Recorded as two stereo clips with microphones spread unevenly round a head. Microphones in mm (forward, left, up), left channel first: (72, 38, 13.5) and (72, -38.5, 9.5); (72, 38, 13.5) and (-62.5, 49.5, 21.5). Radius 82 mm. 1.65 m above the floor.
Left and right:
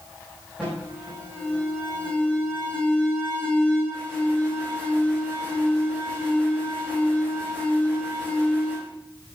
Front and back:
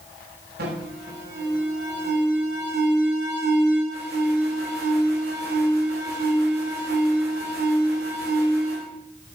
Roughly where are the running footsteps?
I don't hear running footsteps.